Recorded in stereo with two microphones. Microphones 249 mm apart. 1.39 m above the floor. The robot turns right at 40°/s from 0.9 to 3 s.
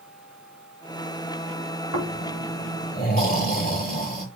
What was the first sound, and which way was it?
Snoring, 100° left.